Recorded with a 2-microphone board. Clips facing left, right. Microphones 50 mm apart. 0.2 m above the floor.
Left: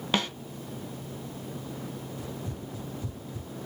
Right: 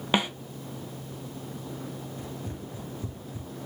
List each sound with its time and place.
0.1 s a snare drum: 15° right (ahead or behind), 0.7 m
2.2 s running footsteps: 35° right (ahead or behind), 4.5 m; by 3.5 s 20° right (ahead or behind), 4 m